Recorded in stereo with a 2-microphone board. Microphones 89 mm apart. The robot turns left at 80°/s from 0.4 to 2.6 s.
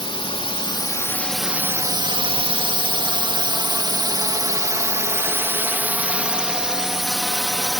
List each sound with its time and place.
0.0 s a drone: 85° left; by 7.8 s 5° left (ahead or behind)